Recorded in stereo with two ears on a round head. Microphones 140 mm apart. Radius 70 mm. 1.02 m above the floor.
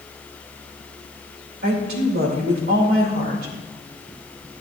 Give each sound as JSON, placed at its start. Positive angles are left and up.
{"t": 1.6, "sound": "a woman speaking", "side_deg": -65, "distance_m": 3.0}